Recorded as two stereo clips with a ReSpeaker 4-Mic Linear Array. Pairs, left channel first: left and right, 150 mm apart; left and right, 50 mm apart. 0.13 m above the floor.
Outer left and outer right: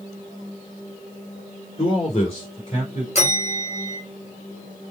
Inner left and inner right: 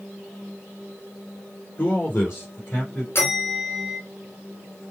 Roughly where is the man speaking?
Left.